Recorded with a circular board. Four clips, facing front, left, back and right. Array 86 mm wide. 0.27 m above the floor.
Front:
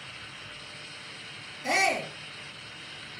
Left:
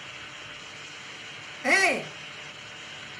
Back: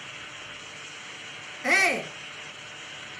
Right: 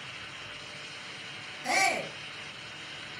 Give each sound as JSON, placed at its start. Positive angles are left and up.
{"t": 1.6, "sound": "a shout", "azimuth_deg": 140, "distance_m": 3.0}